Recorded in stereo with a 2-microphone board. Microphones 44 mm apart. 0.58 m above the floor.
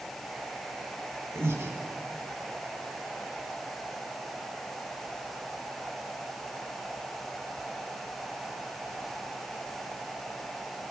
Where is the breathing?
85° right, 1.4 m.